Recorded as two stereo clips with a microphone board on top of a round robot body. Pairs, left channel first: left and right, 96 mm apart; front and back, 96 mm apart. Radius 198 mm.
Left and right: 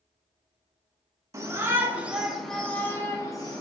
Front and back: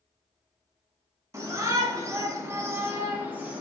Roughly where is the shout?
Behind right.